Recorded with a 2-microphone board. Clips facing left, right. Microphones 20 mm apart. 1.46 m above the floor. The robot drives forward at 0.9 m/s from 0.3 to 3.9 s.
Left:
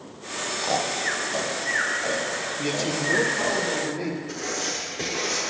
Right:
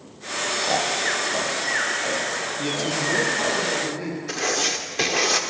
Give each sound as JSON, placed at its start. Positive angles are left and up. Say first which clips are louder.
{"t": 0.6, "sound": "snoring", "louder": "right 1 dB", "side_deg": 0, "distance_m": 0.5}
{"t": 2.6, "sound": "a man speaking", "louder": "right 1 dB", "side_deg": 5, "distance_m": 1.2}
{"t": 4.3, "sound": "writing", "louder": "right 5 dB", "side_deg": -70, "distance_m": 0.9}